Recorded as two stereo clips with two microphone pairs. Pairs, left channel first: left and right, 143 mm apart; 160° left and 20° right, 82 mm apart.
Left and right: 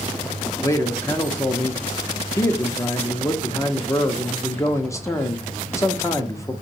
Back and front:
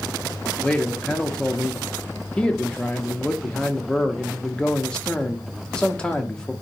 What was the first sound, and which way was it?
A man speaking, 95° left.